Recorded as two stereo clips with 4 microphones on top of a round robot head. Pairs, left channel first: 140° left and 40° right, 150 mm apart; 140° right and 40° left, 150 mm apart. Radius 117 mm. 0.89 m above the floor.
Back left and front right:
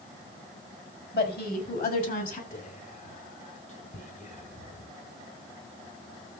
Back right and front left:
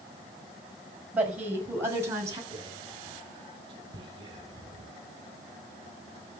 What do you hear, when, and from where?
1.1 s a woman speaking: 120° left, 5.5 m; by 2.4 s 110° left, 6.5 m
2.5 s whispering: 105° left, 3.5 m